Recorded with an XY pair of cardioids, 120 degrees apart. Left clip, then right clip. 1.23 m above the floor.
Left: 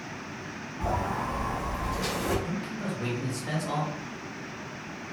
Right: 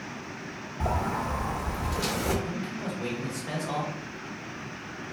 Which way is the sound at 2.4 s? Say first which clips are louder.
Even; 20° left.